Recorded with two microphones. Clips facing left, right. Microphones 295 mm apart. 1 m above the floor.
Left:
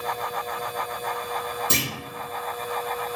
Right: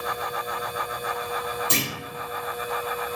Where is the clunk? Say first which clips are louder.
Left 1 dB; 50° left (ahead or behind), 1.0 m.